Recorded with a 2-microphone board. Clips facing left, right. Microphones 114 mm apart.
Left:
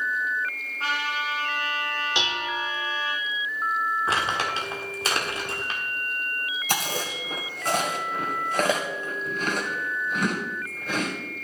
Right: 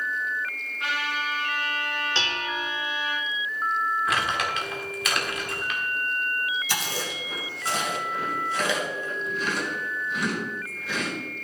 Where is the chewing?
50° left (ahead or behind), 1.9 m.